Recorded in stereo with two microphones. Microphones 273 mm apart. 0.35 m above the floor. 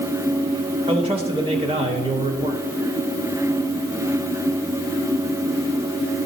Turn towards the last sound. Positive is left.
turn(degrees=-20)  # may be behind; listen again after turning